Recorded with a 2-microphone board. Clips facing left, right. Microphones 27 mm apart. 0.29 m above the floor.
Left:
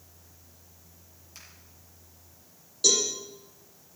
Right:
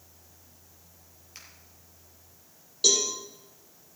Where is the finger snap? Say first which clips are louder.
Right 1 dB; 25° right (ahead or behind), 5.5 m.